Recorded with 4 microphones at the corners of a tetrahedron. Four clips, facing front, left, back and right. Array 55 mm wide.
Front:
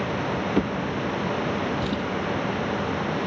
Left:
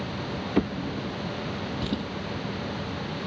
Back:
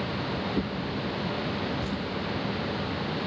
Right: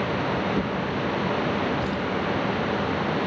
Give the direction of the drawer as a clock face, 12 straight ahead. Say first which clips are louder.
Right 2 dB, front 5 dB; 11 o'clock.